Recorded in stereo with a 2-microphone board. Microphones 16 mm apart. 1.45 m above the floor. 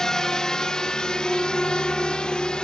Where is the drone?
40° left (ahead or behind); by 2.6 s 70° left (ahead or behind).